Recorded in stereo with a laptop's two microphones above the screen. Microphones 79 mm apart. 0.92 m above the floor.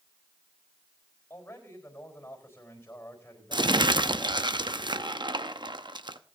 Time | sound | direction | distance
1.3 | a man speaking | 25° left (ahead or behind) | 4 m
3.5 | crumpling | 70° right (ahead or behind) | 0.8 m